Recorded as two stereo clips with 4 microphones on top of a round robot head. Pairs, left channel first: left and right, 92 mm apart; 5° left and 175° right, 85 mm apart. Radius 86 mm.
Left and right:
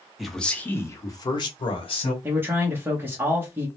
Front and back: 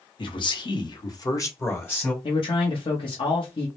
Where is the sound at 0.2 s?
Straight ahead, 0.9 m; by 2.1 s 75° left, 1.3 m.